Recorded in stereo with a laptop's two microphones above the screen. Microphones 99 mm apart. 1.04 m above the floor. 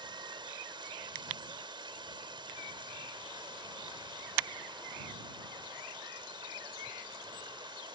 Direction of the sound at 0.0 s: 55° right (ahead or behind).